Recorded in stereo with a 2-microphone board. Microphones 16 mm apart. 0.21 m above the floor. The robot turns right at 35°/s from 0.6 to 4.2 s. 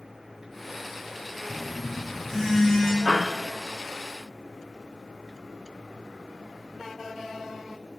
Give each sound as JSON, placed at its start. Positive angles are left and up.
{"t": 1.5, "sound": "a phone buzzing", "azimuth_deg": -35, "distance_m": 2.5}
{"t": 3.0, "sound": "a piano", "side_deg": -30, "distance_m": 4.0}